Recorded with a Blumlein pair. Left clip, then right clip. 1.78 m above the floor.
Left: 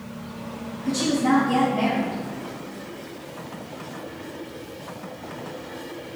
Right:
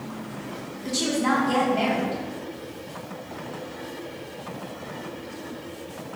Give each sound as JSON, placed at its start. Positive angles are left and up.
{"t": 0.8, "sound": "a woman speaking", "azimuth_deg": -45, "distance_m": 1.8}